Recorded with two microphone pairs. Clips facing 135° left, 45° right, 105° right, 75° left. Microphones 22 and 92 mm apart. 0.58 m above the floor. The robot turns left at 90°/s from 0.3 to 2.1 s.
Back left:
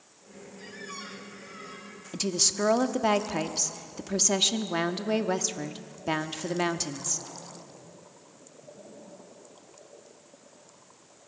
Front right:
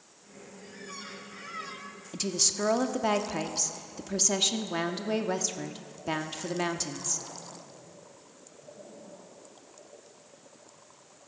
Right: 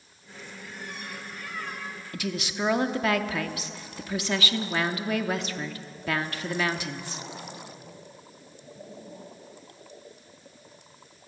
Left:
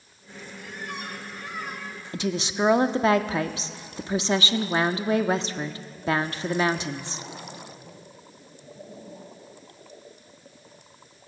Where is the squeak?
90° left, 2 m; by 2.0 s 40° right, 2 m.